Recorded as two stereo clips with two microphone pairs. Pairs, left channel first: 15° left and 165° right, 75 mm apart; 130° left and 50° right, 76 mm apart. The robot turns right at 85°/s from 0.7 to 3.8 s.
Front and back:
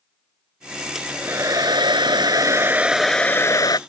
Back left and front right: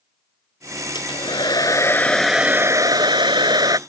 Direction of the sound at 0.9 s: 110° left.